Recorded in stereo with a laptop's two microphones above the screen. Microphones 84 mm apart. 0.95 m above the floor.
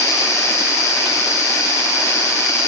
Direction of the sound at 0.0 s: 40° left (ahead or behind).